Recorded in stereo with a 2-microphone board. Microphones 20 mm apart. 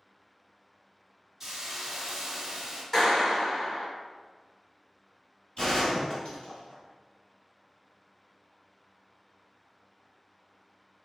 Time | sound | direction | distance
1.4 | a hiss | 20° right (ahead or behind) | 0.8 m
2.9 | a clap | 15° left (ahead or behind) | 1.4 m
5.6 | a gunshot | 40° left (ahead or behind) | 1.9 m